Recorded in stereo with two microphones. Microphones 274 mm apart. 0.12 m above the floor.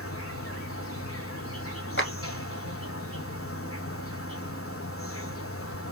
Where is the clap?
45° left (ahead or behind), 1.8 m.